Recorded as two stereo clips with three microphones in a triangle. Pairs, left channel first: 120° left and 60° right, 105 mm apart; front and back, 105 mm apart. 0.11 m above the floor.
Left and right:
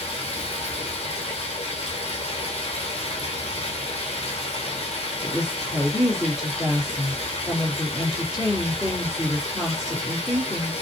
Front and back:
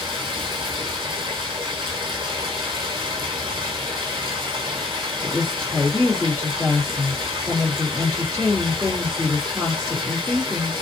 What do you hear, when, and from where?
0.0 s running water: 135° left, 0.9 m
5.2 s a woman speaking: 145° right, 1.8 m